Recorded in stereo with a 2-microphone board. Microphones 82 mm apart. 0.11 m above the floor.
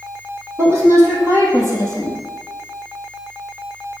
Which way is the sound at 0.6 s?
35° right (ahead or behind).